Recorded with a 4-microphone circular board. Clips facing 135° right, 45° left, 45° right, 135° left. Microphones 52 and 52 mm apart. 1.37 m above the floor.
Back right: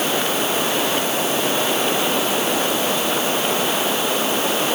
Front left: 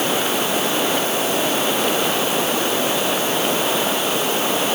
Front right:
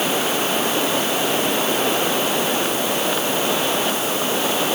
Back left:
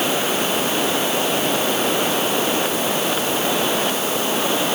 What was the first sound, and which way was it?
Only background noise.